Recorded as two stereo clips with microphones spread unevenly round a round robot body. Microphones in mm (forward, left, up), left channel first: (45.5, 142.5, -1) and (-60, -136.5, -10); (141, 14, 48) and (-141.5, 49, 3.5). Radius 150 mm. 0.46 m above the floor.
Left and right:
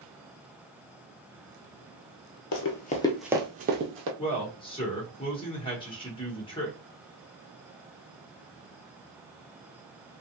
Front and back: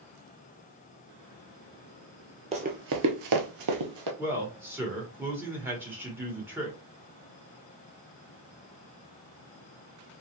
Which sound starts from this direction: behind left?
A man speaking, at 4.2 s.